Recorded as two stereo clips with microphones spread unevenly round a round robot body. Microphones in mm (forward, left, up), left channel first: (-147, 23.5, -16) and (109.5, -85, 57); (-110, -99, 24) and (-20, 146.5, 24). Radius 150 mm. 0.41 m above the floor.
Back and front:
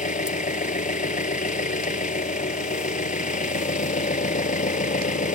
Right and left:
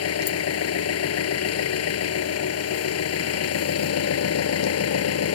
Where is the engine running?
140° right.